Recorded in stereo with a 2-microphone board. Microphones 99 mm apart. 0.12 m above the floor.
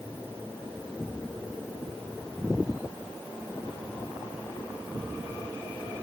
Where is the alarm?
I don't hear an alarm.